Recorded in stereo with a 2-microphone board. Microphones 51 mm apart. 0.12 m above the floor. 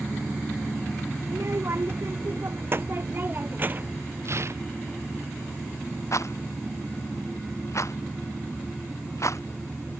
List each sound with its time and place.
1.3 s a child speaking: 55° right (ahead or behind); by 4.0 s 30° right (ahead or behind)
4.2 s tearing paper: 55° right (ahead or behind)
6.1 s a rattle: 65° left (ahead or behind)